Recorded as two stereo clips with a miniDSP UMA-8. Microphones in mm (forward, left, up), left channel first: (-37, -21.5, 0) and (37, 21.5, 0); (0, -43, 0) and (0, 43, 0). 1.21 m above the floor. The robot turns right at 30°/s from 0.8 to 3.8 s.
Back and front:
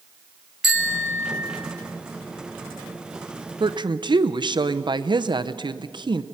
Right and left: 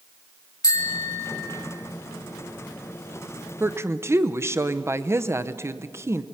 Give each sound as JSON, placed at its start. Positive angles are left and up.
{"t": 0.6, "sound": "a bicycle bell", "azimuth_deg": -50, "distance_m": 2.5}
{"t": 3.6, "sound": "a woman speaking", "azimuth_deg": 30, "distance_m": 0.7}